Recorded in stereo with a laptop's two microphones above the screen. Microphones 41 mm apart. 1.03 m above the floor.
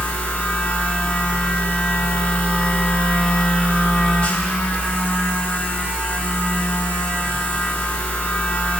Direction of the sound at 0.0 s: 35° left (ahead or behind).